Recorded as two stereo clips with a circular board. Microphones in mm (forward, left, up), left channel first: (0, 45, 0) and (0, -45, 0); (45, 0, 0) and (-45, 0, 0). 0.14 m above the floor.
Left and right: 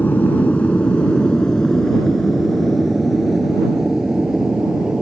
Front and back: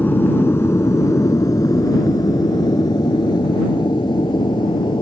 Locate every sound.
0.0 s an aircraft: 45° left; by 5.0 s 10° right